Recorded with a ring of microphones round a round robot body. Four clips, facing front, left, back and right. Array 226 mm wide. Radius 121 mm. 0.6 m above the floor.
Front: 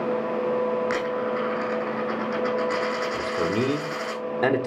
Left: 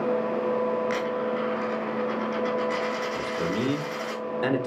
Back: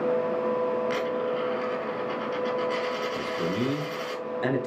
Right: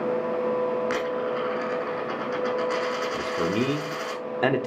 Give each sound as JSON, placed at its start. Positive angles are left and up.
{"t": 0.9, "sound": "a dropped coin", "azimuth_deg": -35, "distance_m": 3.0}
{"t": 3.1, "sound": "a man speaking", "azimuth_deg": -50, "distance_m": 1.3}